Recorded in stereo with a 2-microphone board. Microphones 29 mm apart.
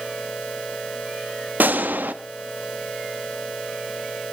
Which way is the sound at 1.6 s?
85° right.